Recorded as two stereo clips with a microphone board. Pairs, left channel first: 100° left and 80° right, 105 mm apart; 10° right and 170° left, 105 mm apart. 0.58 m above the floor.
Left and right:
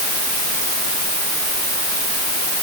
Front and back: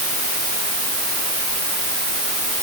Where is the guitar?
I don't hear a guitar.